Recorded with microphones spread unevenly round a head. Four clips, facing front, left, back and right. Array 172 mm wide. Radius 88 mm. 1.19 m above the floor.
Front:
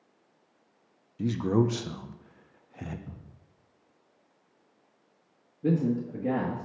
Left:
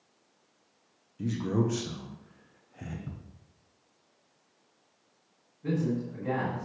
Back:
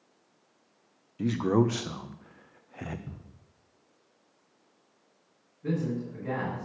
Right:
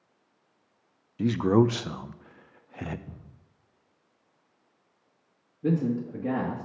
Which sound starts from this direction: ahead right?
A man speaking, at 5.6 s.